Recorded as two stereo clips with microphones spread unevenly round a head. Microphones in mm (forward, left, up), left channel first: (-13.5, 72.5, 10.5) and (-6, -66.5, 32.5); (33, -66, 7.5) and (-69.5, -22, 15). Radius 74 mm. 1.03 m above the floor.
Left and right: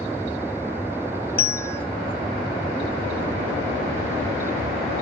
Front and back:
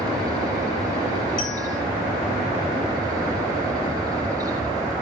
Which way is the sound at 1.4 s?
15° left.